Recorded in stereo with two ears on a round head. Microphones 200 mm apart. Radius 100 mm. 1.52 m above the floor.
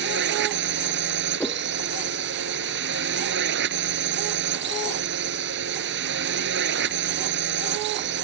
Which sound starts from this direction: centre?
A whoosh, at 1.4 s.